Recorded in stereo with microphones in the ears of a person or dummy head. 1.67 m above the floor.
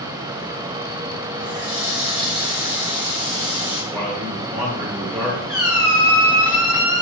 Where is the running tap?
10° right (ahead or behind), 1.7 m.